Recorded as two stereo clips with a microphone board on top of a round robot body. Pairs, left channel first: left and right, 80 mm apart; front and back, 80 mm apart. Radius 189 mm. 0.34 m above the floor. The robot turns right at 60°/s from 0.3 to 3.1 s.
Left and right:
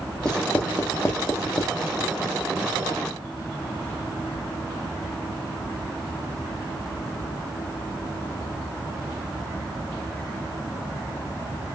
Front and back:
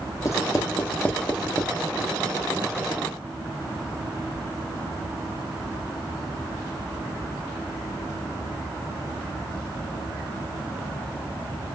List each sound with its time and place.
0.2 s writing: 15° left, 1.1 m; by 1.8 s 105° left, 1.1 m